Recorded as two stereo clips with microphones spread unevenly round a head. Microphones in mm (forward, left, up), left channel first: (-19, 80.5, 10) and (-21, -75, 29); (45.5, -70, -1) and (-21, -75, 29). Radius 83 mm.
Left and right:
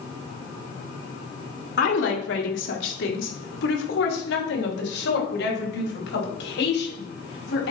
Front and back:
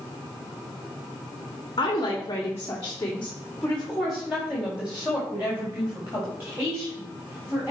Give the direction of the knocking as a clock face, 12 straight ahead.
I don't hear knocking.